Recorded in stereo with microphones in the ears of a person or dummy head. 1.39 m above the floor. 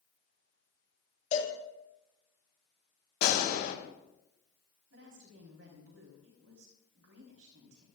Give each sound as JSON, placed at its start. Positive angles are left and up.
{"t": 1.3, "sound": "a cowbell", "side_deg": 45, "distance_m": 3.0}
{"t": 3.2, "sound": "a gunshot", "side_deg": 55, "distance_m": 3.0}
{"t": 4.9, "sound": "a woman speaking", "side_deg": -90, "distance_m": 3.5}